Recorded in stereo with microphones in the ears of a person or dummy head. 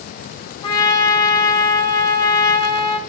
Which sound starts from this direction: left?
A trumpet, at 0.6 s.